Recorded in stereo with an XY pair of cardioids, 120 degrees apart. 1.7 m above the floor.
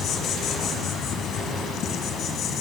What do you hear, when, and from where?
0.0 s an insect: 65° left, 1.3 m